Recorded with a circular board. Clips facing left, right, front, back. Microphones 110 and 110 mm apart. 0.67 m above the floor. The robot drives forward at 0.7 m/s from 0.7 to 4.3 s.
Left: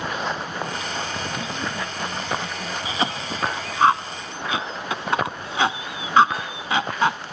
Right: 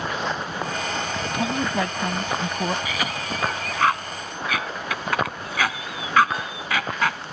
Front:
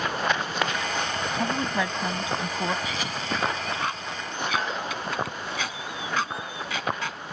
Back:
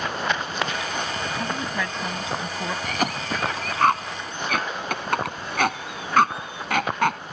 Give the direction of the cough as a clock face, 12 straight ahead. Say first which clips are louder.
Left 2 dB, back 4 dB; 7 o'clock.